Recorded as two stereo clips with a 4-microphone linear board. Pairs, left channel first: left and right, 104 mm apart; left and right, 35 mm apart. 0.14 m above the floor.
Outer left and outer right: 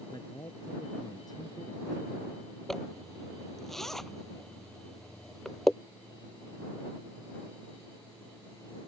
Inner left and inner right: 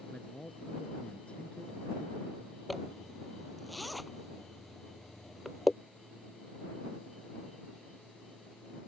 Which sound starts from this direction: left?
A man speaking, at 0.1 s.